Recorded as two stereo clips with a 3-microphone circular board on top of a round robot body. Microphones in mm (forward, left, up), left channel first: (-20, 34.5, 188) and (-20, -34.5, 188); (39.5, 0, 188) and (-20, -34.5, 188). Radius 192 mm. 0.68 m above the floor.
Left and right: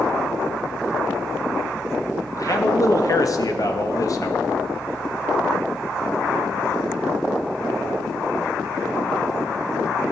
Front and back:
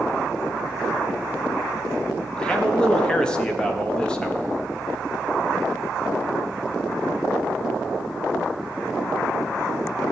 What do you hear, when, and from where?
2.4 s a man speaking: 105° left, 1.8 m